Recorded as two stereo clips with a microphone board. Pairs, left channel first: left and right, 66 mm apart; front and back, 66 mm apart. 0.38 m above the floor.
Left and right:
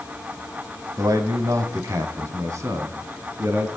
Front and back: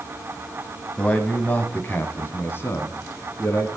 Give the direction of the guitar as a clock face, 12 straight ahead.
I don't hear a guitar.